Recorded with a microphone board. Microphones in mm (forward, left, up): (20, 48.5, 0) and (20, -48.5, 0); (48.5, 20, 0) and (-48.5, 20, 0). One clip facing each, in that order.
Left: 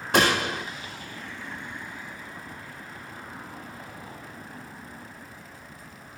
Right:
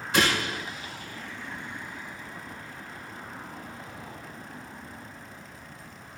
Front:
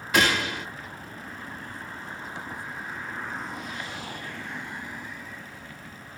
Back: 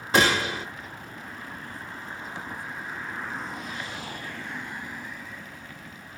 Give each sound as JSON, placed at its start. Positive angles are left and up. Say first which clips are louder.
{"t": 0.1, "sound": "a gunshot", "louder": "left 3 dB, back 2 dB", "azimuth_deg": 120, "distance_m": 1.0}